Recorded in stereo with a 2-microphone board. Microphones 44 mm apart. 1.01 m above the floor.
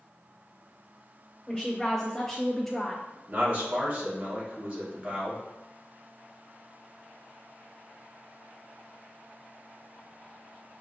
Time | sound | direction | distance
1.5 | a woman speaking | 5° left (ahead or behind) | 0.9 m
3.3 | a man speaking | 30° right (ahead or behind) | 1.2 m